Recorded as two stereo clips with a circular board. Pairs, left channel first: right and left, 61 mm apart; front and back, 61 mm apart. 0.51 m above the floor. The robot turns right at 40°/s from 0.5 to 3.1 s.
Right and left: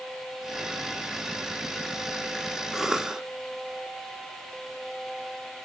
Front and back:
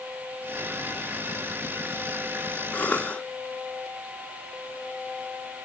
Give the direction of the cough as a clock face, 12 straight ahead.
12 o'clock.